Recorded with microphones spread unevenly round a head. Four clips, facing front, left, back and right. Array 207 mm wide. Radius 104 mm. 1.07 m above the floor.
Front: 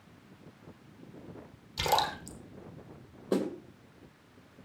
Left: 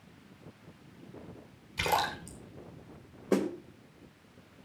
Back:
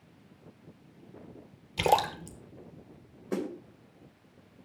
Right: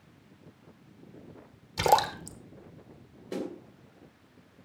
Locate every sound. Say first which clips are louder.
1.8 s a splash: right 6 dB, back 4 dB; 135° right, 1.0 m
3.3 s a snare drum: left 7 dB, front 3 dB; 55° left, 2.5 m